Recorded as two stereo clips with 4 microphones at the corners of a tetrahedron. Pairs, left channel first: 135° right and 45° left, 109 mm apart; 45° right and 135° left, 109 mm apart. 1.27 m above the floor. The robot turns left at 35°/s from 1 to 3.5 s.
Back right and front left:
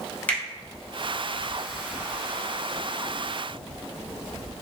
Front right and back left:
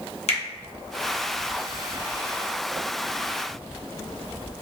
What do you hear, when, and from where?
0.3 s a finger snap: 60° right, 0.9 m